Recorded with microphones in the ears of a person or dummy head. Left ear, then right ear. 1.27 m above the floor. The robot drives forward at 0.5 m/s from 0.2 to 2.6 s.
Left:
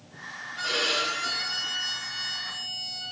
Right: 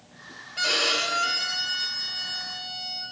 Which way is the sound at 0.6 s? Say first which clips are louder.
Right 3 dB; 70° right (ahead or behind).